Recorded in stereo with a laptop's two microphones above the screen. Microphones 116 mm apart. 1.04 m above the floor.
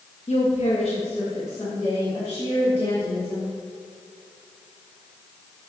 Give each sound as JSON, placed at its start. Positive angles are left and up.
{"t": 0.3, "sound": "a woman speaking", "side_deg": 65, "distance_m": 1.4}